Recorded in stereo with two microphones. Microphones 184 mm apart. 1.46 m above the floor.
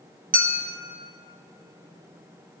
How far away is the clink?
About 0.7 m.